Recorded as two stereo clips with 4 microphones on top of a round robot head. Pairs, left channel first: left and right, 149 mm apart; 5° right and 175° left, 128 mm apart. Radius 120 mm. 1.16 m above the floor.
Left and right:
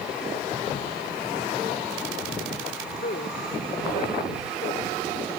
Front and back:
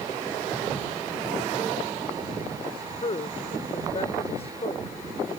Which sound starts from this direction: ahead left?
A woman speaking, at 2.6 s.